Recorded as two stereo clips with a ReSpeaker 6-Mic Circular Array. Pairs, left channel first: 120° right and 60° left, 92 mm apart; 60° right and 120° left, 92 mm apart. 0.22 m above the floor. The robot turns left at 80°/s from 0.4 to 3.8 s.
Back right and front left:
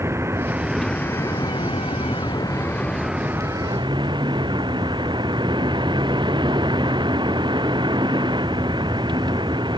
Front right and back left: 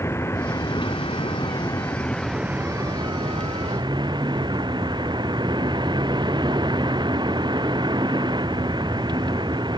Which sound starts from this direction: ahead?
A vehicle, at 0.0 s.